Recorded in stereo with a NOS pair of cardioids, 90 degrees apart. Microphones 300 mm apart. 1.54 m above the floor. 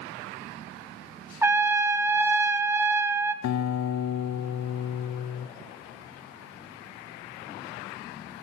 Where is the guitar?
65° left, 0.7 m.